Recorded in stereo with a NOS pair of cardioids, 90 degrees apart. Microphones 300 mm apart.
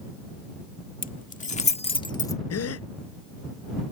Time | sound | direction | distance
1.0 | keys jangling | 30° left | ?
2.5 | a gasp | 60° left | ?